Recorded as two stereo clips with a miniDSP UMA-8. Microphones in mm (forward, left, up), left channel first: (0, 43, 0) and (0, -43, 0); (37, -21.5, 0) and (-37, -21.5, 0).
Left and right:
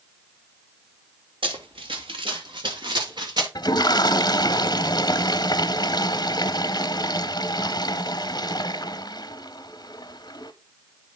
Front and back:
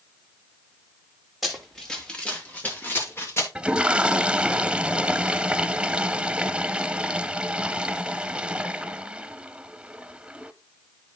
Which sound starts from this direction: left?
A toilet flushing, at 3.5 s.